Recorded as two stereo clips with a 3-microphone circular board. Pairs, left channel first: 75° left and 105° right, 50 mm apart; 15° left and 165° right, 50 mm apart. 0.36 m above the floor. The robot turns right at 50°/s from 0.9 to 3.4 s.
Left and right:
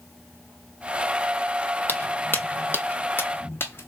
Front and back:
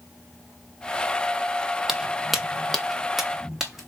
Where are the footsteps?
115° left, 0.6 m; by 3.9 s 110° left, 1.1 m.